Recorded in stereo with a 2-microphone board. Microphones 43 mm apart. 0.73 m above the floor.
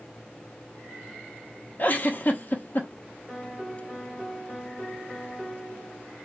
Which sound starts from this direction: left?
A giggle, at 1.8 s.